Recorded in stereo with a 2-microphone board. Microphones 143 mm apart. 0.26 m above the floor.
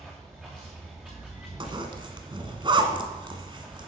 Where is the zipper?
35° right (ahead or behind), 1.4 m.